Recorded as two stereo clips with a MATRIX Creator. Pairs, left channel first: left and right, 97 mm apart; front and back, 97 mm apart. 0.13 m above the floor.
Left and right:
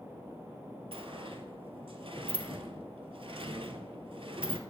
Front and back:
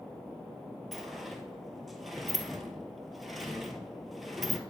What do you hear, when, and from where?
0.9 s a sliding door: 90° right, 0.8 m